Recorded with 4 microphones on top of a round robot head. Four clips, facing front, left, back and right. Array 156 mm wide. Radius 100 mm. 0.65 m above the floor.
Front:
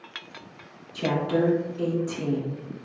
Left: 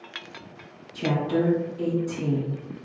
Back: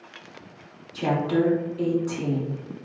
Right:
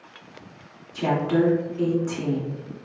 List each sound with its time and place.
0.9 s a woman speaking: 125° right, 1.8 m